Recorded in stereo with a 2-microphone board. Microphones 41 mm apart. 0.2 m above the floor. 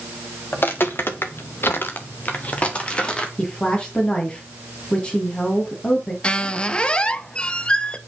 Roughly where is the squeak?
Left.